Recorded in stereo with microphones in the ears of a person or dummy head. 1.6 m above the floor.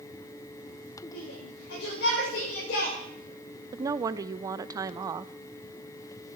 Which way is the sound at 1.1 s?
70° left (ahead or behind).